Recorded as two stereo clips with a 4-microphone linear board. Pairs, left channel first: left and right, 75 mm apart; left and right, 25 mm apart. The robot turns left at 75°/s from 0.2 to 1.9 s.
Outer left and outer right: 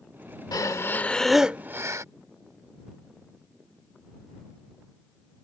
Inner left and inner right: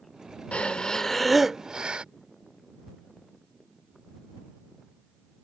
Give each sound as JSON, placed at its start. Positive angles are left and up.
{"t": 0.5, "sound": "breathing", "azimuth_deg": 60}